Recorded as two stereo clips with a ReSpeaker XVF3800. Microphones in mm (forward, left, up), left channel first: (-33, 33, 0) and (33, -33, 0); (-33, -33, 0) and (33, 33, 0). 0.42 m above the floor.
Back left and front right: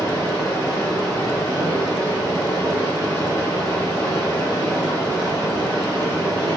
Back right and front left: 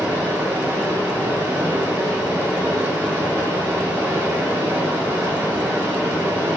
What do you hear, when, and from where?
0.0 s running water: 95° left, 1.4 m